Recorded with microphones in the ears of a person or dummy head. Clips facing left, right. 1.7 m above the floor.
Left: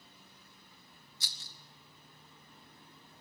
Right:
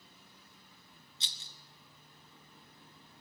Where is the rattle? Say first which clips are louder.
Even; 25° right (ahead or behind), 0.6 m.